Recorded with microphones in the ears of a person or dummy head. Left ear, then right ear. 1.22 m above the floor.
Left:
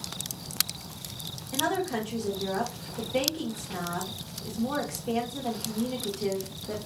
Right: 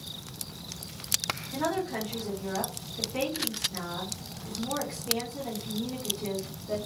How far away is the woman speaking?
About 0.9 m.